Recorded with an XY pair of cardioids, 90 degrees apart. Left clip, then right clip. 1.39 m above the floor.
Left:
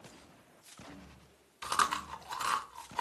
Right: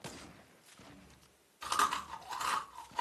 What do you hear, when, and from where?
1.6 s chewing: 35° left, 0.7 m